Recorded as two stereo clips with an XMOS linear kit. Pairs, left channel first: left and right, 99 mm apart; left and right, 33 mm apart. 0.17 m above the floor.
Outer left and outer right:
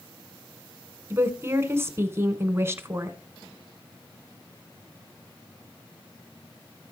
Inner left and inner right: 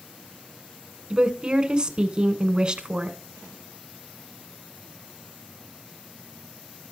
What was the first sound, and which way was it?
A woman speaking, 25° right (ahead or behind).